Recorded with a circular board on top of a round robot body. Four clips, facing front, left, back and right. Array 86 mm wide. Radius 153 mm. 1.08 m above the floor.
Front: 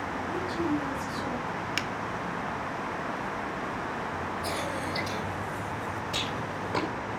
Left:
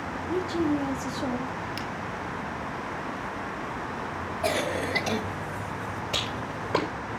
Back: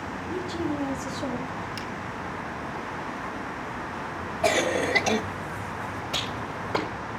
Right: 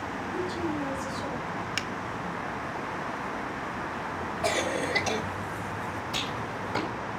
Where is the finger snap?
40° right, 1.0 m.